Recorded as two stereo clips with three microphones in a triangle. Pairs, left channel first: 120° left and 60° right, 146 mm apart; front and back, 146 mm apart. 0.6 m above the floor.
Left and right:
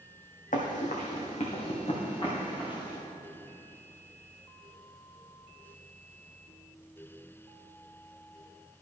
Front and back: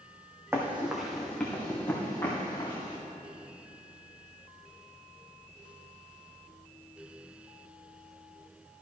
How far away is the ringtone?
No ringtone in this recording.